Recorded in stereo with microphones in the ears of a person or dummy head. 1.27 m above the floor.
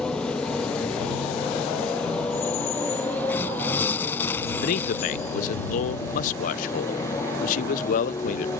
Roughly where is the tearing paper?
Centre.